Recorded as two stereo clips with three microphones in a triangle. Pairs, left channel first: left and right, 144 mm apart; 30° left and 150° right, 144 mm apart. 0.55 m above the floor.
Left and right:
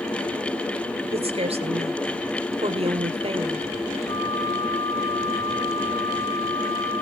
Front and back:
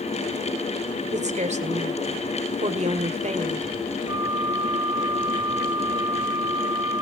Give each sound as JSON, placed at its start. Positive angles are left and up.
{"t": 1.1, "sound": "a woman speaking", "azimuth_deg": -130, "distance_m": 1.7}
{"t": 4.1, "sound": "a flute", "azimuth_deg": 145, "distance_m": 0.6}